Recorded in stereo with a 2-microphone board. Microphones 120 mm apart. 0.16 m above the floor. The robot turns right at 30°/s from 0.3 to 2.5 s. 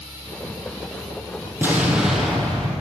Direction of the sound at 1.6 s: 20° right (ahead or behind).